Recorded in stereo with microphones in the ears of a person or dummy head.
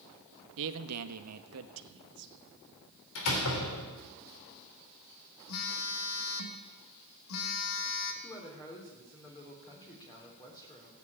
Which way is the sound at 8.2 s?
25° left (ahead or behind).